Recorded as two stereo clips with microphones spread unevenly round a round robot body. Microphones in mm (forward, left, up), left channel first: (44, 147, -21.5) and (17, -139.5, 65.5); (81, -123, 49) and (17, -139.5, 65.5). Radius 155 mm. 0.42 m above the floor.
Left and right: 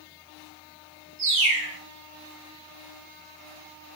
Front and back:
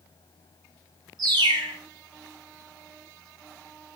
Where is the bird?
150° right, 0.9 m.